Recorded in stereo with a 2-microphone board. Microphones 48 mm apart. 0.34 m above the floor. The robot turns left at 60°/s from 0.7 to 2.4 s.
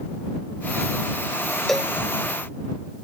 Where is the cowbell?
5° left (ahead or behind); by 1.9 s 10° right (ahead or behind).